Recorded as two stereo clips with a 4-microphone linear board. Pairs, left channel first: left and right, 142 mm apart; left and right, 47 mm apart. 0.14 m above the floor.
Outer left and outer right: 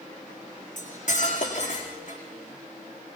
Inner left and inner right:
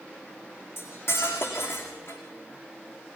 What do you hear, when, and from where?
0.8 s cutlery clinking: 60° left (ahead or behind), 5 m